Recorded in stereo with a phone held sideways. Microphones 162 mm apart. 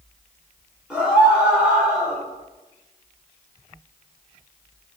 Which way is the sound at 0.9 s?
5° right (ahead or behind).